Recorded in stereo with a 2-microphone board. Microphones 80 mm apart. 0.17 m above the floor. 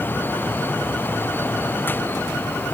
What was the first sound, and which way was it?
Only background noise.